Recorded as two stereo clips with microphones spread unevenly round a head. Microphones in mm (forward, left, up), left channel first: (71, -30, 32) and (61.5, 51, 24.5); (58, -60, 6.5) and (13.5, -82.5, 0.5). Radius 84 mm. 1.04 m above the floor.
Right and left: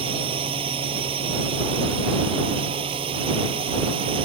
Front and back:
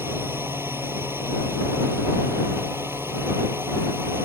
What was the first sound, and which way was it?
A drone, 130° left.